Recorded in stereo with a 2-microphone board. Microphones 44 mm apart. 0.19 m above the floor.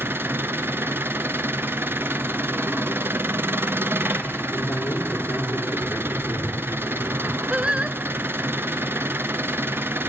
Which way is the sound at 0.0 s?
55° right (ahead or behind).